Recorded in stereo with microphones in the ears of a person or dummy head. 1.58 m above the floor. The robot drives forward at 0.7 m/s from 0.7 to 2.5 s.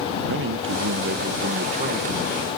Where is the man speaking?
55° right (ahead or behind); by 2.5 s 25° right (ahead or behind).